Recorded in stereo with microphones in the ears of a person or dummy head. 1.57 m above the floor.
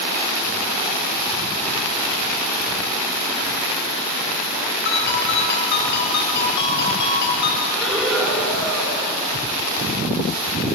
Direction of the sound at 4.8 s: 60° left (ahead or behind).